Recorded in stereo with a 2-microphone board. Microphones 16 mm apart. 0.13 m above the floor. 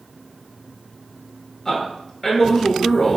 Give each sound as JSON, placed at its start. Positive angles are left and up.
{"t": 1.6, "sound": "a man speaking", "side_deg": 10, "distance_m": 1.6}